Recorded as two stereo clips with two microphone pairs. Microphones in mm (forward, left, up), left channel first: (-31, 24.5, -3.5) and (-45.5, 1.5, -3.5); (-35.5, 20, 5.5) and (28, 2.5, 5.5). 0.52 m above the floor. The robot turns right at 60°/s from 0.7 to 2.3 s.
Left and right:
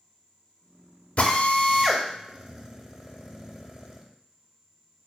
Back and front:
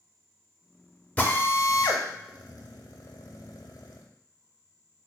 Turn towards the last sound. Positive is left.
turn(degrees=165)